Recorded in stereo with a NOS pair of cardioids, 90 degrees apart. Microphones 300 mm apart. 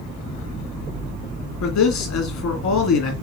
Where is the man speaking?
65° left, 1.9 m.